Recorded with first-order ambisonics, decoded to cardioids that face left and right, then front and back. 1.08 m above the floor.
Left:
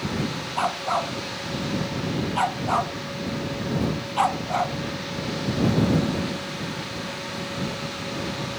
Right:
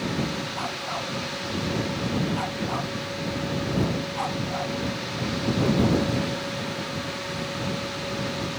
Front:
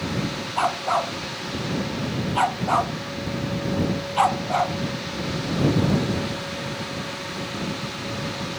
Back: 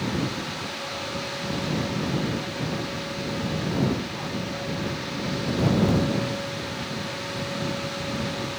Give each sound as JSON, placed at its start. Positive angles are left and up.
{"t": 0.6, "sound": "a dog barking", "azimuth_deg": 30}